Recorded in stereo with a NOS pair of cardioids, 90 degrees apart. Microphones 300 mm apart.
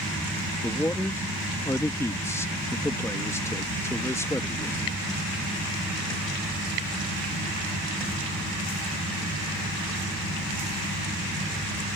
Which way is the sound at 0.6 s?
10° left.